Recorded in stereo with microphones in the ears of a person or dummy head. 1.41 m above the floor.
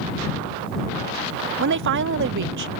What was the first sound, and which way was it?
A woman speaking, 60° right (ahead or behind).